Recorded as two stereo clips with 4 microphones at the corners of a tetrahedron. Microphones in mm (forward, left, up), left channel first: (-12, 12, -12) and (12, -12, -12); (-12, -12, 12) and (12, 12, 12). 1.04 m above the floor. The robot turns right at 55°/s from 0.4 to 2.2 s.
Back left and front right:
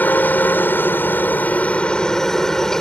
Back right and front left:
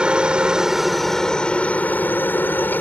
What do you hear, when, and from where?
0.0 s a helicopter: 110° left; by 2.8 s 155° right